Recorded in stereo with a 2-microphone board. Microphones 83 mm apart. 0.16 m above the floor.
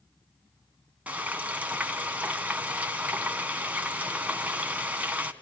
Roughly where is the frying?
Centre.